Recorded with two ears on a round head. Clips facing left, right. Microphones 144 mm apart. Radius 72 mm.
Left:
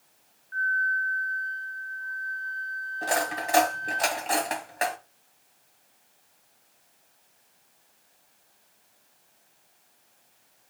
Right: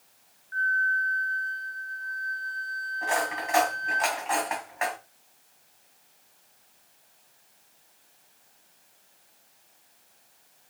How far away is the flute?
About 0.9 m.